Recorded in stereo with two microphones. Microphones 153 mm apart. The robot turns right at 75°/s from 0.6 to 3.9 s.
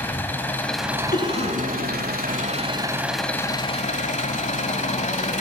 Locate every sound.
0.0 s an engine running: 165° left, 1.1 m; by 5.4 s 55° left, 1.1 m
1.1 s a cough: 65° left (ahead or behind), 3 m; by 2.6 s 40° right (ahead or behind), 3 m